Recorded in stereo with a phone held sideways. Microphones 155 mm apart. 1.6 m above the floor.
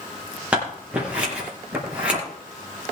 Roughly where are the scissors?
Centre.